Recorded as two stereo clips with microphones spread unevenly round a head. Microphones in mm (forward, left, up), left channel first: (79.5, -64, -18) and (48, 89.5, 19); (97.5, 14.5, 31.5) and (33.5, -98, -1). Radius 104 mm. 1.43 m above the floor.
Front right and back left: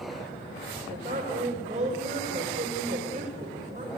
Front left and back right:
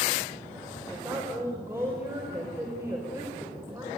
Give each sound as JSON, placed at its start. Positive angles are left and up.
{"t": 0.9, "sound": "a woman speaking", "azimuth_deg": 160, "distance_m": 5.5}